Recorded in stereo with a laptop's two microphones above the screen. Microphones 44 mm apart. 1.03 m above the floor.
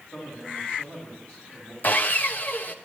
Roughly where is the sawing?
Left.